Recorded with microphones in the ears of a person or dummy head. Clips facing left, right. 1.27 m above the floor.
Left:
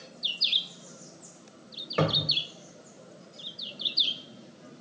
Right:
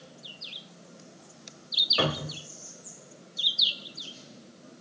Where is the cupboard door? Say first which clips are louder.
Left 2 dB; 40° left (ahead or behind), 0.8 m.